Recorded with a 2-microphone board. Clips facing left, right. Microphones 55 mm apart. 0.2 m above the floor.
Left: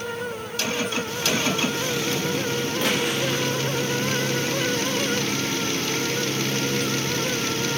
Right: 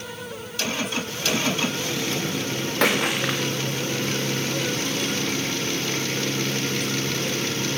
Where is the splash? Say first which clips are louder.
Right 4 dB; 80° right, 5.5 m.